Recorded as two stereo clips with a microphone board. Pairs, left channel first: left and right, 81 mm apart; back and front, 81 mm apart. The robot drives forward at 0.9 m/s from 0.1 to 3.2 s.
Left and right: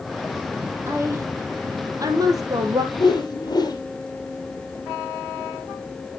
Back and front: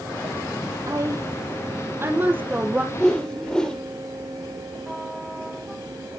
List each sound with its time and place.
0.9 s a woman speaking: 40° right, 3.5 m; by 2.8 s 70° right, 2.5 m
2.9 s a whoosh: 100° left, 2.5 m; by 3.8 s 105° left, 3 m